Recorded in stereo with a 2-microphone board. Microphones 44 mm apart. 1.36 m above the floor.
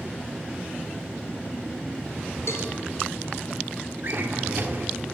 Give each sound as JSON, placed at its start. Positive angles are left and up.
{"t": 2.5, "sound": "a cowbell", "side_deg": 70, "distance_m": 3.0}
{"t": 4.0, "sound": "a drawer", "side_deg": -50, "distance_m": 1.7}